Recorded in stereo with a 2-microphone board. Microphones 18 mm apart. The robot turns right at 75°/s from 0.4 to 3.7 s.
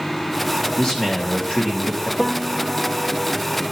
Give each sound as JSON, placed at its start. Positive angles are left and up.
{"t": 0.8, "sound": "a man speaking", "azimuth_deg": 60, "distance_m": 3.5}
{"t": 2.2, "sound": "a piano", "azimuth_deg": 160, "distance_m": 1.4}